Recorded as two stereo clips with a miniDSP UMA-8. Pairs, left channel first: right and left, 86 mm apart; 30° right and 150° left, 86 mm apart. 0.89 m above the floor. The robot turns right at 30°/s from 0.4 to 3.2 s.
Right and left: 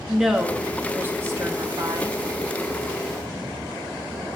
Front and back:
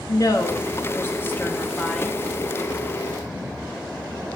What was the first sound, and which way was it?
A woman speaking, 5° left.